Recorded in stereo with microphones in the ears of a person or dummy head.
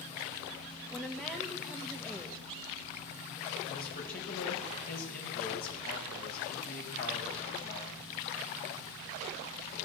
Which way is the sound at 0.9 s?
Centre (ahead or behind).